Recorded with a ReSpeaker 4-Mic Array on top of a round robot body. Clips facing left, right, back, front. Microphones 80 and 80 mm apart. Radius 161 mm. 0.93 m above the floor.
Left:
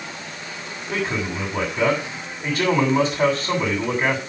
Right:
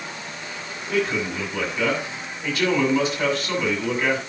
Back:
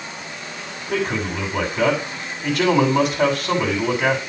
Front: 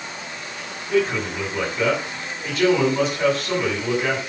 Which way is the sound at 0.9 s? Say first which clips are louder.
Right 2 dB, front 2 dB; 150° left.